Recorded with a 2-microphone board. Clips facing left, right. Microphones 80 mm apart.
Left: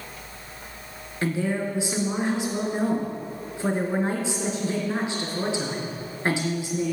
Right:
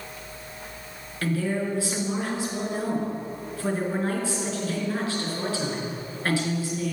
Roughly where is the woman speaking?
Centre.